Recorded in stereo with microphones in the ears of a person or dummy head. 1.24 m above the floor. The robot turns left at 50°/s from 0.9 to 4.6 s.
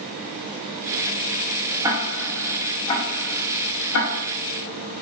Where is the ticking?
20° right (ahead or behind), 0.7 m; by 4.2 s 80° left, 0.7 m.